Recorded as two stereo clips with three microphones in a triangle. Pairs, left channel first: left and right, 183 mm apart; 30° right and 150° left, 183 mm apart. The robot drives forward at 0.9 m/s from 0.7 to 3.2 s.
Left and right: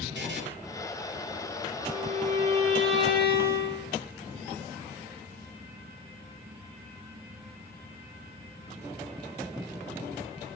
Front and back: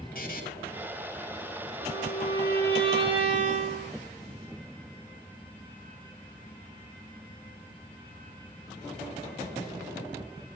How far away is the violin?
About 4.5 m.